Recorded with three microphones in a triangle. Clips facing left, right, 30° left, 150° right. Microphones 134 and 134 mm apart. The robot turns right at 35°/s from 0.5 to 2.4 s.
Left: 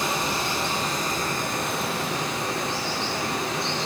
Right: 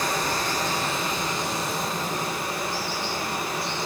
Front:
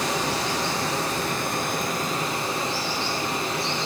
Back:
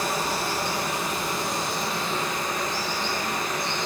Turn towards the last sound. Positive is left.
turn(degrees=90)